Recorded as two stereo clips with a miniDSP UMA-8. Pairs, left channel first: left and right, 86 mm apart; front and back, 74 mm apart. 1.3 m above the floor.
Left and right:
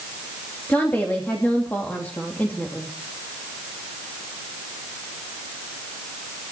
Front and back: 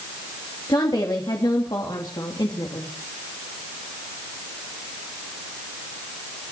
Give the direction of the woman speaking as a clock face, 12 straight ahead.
11 o'clock.